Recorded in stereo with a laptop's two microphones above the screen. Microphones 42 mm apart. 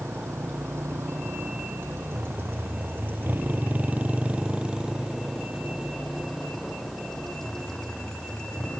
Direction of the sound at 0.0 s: 90° right.